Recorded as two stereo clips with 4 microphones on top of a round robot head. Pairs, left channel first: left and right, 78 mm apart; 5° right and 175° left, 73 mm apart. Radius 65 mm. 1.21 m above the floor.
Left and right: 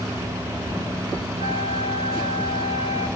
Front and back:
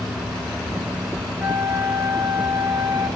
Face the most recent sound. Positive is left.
turn(degrees=-105)